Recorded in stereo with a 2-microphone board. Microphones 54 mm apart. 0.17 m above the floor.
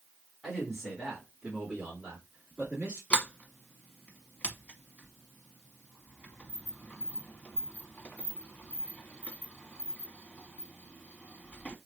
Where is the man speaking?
5° left (ahead or behind), 1.5 m; by 3.0 s 25° right (ahead or behind), 2.5 m.